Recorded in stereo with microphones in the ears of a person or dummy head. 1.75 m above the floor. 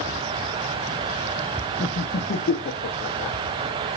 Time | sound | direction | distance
1.8 | laughter | 45° left (ahead or behind) | 0.8 m